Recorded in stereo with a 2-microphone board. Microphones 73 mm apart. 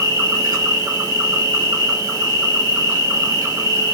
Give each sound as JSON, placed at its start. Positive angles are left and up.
{"t": 0.0, "sound": "an insect", "side_deg": -55, "distance_m": 2.5}